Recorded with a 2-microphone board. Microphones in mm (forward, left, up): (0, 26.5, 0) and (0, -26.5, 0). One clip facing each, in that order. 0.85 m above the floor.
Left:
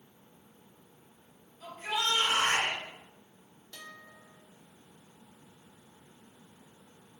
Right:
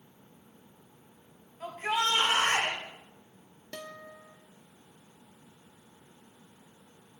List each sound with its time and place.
1.6 s a shout: 45° right (ahead or behind), 5.5 m
3.7 s a guitar: 70° right (ahead or behind), 1.1 m